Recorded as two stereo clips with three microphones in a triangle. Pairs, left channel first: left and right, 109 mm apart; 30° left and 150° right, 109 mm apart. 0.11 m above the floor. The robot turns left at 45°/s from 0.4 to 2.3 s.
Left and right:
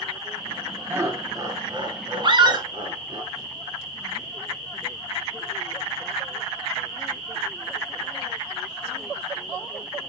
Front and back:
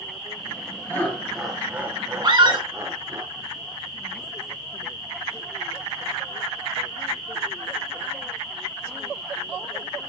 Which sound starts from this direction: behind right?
A scream, at 2.2 s.